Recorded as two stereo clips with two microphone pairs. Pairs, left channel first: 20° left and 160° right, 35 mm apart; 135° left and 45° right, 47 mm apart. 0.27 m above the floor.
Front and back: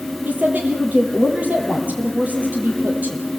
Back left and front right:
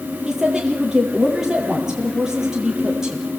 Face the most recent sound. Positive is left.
turn(degrees=-125)